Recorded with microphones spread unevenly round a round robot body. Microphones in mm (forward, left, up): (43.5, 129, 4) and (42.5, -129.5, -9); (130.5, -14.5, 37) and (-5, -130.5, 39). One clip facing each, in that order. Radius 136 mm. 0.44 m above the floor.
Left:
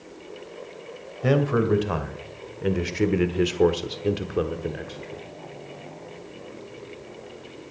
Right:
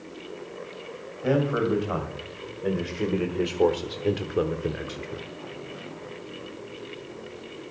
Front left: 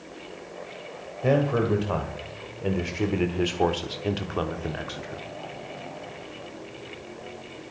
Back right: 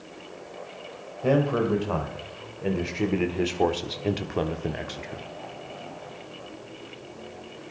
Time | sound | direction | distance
1.2 | a man speaking | 125° left | 1.9 m